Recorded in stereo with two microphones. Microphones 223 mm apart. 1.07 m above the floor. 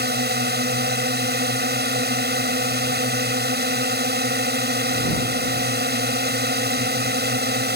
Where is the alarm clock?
I don't hear an alarm clock.